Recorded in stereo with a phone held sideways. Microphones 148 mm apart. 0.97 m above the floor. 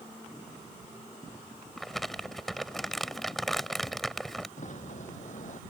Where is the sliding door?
55° left (ahead or behind).